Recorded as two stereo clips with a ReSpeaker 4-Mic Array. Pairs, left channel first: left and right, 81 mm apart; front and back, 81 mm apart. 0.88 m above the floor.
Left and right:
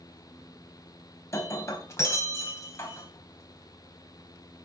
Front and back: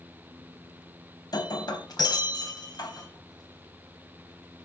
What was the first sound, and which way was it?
Breaking glass, 35° left.